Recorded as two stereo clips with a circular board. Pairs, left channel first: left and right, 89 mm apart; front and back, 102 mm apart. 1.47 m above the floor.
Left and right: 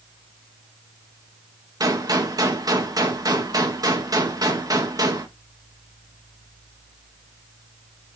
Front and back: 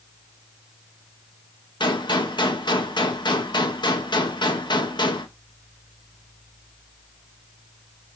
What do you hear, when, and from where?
1.8 s a gunshot: 40° right, 1.7 m